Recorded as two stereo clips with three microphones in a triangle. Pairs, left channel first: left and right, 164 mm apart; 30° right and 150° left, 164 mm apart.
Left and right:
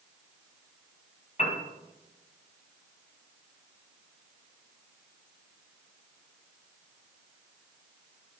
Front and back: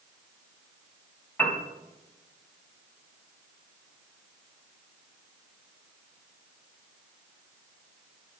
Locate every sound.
1.4 s a piano: 45° left, 3.5 m